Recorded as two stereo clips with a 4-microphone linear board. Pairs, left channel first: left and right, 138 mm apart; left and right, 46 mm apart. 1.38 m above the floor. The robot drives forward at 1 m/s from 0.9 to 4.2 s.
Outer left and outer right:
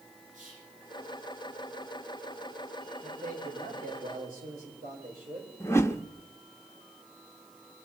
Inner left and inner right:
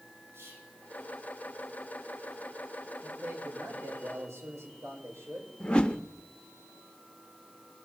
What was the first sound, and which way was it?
Whispering, 65° right (ahead or behind).